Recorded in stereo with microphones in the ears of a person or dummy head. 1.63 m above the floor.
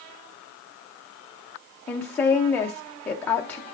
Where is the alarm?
No alarm in this recording.